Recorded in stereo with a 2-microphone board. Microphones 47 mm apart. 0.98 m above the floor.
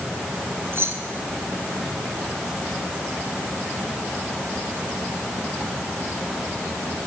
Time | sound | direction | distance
0.7 | keys jangling | 55° right (ahead or behind) | 3.5 m